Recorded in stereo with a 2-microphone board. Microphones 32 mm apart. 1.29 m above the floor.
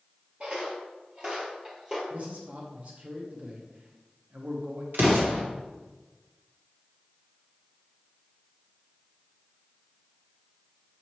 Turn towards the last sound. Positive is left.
turn(degrees=-75)  # may be behind; listen again after turning